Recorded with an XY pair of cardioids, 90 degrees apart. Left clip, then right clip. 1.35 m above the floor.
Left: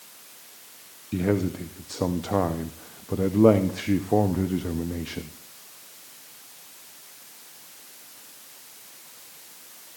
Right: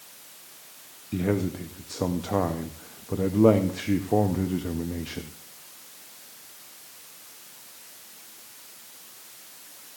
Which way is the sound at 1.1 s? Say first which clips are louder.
Left 2 dB; 10° left.